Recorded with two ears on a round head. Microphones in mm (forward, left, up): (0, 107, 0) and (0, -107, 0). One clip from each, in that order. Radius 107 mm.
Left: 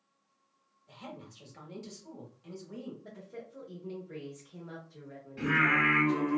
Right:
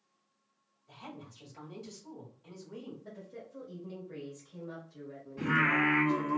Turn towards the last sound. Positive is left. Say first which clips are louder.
# left 2 dB
turn(degrees=25)  # may be behind; listen again after turning